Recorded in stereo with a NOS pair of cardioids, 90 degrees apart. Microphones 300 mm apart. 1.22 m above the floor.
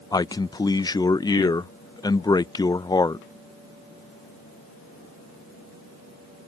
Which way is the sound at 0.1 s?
15° left.